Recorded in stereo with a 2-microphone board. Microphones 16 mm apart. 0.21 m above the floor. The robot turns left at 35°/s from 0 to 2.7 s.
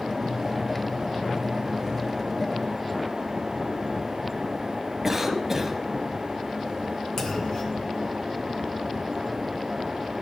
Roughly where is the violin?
I don't hear a violin.